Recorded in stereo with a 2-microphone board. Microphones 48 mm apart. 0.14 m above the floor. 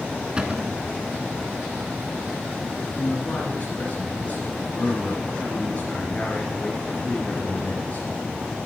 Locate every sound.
0.4 s a cupboard door: 20° right (ahead or behind), 0.9 m
3.0 s a man speaking: 30° left (ahead or behind), 2.0 m